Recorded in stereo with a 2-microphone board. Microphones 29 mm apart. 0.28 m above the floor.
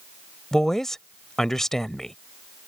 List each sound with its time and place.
0.5 s a woman speaking: 15° left (ahead or behind)